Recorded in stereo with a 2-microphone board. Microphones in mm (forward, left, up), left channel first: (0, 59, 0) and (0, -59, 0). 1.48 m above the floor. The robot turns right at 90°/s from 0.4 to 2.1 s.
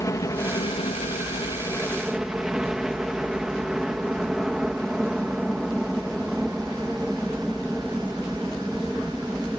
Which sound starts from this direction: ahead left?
A helicopter, at 0.0 s.